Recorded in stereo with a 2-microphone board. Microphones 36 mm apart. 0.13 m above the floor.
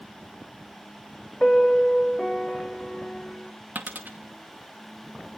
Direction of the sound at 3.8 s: 65° right (ahead or behind).